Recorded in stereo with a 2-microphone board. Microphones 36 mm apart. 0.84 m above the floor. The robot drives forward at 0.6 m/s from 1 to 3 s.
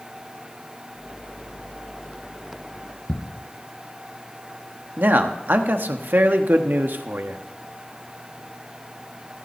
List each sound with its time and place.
3.1 s ticking: 25° left (ahead or behind), 2.5 m
5.0 s a man speaking: 65° right (ahead or behind), 1.1 m